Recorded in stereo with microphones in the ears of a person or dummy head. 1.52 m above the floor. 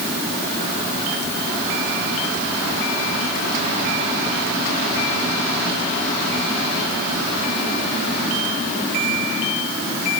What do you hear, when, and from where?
Only background noise.